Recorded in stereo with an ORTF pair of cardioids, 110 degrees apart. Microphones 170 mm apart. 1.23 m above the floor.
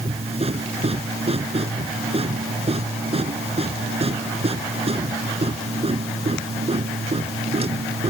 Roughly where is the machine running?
Ahead right.